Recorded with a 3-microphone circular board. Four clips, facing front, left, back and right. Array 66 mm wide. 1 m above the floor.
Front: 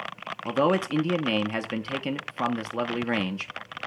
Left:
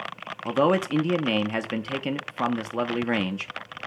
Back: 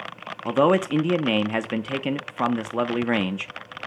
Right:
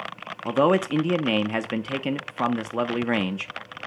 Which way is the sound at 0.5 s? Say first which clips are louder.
Right 2 dB, back 4 dB; 155° right.